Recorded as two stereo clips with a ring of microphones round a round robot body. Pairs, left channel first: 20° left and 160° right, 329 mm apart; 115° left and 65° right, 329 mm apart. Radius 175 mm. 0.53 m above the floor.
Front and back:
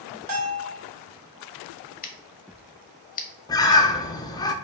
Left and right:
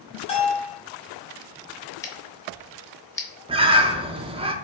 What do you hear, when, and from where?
0.3 s a bell: 175° right, 2 m
2.0 s scissors: 40° left, 0.9 m
3.5 s a bird: 30° right, 0.6 m